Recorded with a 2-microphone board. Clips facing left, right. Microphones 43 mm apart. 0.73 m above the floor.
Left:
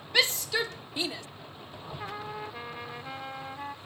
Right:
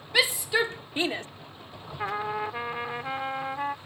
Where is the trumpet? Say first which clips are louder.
Right 9 dB; 35° right (ahead or behind).